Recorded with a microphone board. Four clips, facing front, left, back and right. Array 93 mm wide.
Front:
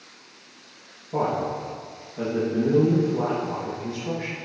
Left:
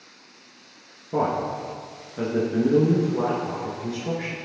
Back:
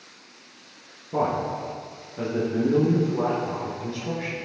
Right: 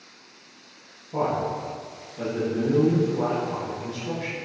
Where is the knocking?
No knocking in this recording.